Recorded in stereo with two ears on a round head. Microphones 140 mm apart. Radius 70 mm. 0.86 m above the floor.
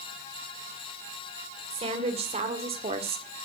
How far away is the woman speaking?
About 2.5 m.